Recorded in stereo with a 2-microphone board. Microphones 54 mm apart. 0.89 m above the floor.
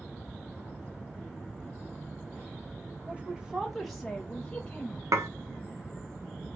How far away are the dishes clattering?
About 0.6 m.